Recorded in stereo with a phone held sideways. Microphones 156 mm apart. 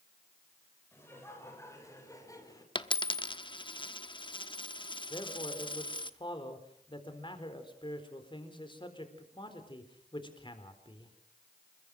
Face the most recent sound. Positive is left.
turn(degrees=30)  # may be behind; listen again after turning